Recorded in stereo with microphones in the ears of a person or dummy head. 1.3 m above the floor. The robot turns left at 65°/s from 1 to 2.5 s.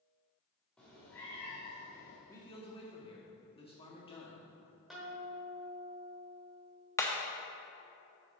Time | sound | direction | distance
0.8 | a cat meowing | straight behind | 1.4 m
2.3 | a man speaking | 10° left (ahead or behind) | 1.4 m
4.9 | a guitar | centre (ahead or behind) | 1.3 m
7.0 | hammering | 15° left (ahead or behind) | 0.7 m